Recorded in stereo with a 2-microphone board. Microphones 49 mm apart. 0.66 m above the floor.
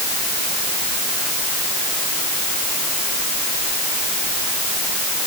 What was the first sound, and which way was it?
Only background noise.